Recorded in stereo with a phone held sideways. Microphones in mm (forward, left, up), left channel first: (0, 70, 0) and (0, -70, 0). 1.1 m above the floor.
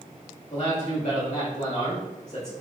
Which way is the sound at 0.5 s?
55° left (ahead or behind).